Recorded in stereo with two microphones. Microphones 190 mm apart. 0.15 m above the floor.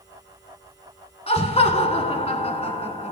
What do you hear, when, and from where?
1.3 s laughter: 35° left (ahead or behind), 1.2 m